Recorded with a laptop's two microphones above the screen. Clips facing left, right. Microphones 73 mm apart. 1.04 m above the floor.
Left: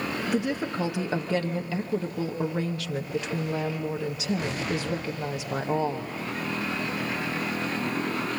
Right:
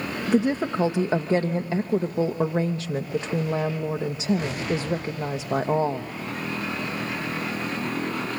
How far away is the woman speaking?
About 0.8 m.